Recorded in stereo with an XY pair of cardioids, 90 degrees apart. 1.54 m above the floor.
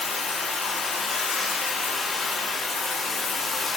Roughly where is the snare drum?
No snare drum in this recording.